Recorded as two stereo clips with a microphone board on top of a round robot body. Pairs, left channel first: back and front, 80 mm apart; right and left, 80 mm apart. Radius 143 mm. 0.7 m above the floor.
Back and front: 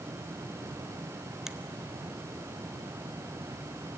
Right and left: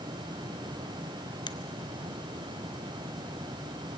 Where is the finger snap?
85° right, 0.8 m.